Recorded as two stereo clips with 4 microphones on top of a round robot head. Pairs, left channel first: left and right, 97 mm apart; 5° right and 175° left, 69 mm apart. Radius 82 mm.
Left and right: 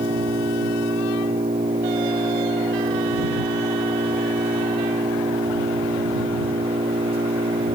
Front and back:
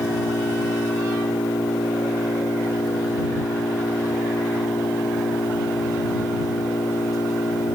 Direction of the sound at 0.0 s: 50° right.